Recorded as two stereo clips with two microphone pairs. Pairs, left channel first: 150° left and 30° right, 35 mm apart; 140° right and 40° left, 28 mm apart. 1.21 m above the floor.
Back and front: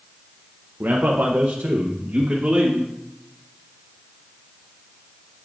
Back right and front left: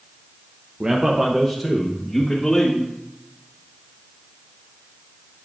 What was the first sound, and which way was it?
A man speaking, 10° right.